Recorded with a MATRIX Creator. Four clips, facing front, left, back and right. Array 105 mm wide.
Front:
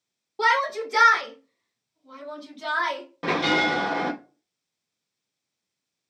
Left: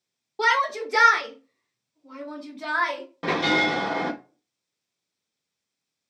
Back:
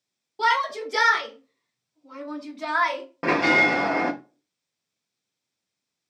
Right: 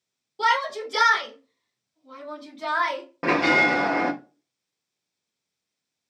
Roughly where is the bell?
Behind right.